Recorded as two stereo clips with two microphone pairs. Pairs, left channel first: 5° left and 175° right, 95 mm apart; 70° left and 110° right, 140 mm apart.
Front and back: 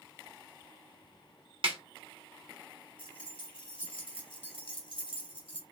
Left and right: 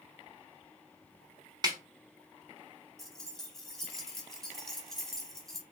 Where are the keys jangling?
20° right, 1.4 m.